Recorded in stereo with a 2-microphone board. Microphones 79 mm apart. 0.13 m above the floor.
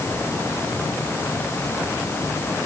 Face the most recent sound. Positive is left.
No sound to turn to.